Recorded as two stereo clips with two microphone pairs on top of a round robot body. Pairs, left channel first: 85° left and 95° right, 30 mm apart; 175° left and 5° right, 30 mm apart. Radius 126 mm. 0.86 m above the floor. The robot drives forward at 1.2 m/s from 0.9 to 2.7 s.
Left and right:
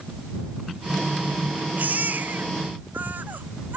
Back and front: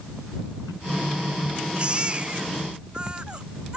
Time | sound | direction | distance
1.8 | a baby crying | 60° right | ?